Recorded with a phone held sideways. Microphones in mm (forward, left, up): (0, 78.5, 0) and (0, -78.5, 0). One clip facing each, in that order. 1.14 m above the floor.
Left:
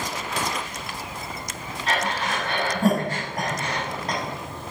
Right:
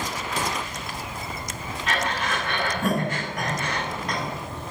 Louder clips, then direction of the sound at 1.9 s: Left 1 dB; 35° left (ahead or behind).